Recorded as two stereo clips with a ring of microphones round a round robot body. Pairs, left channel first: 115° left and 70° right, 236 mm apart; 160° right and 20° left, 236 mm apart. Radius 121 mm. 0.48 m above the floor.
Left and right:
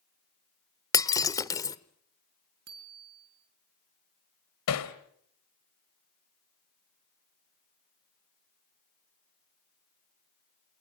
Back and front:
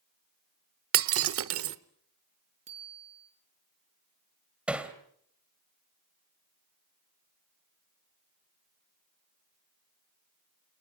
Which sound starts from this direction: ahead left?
Breaking glass, at 0.9 s.